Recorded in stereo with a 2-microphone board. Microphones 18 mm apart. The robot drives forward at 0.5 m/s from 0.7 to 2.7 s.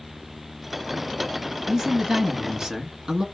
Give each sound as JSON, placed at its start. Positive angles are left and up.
{"t": 1.7, "sound": "a man speaking", "side_deg": -30, "distance_m": 1.3}